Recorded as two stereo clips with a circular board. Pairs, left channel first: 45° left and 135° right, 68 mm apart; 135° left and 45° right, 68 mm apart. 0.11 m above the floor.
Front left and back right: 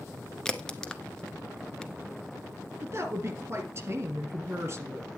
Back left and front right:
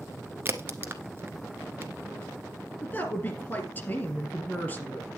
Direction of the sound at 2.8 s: 175° right.